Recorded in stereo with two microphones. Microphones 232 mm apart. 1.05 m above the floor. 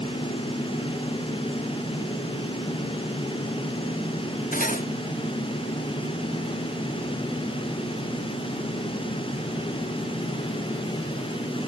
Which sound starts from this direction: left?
Cutlery clinking, at 4.5 s.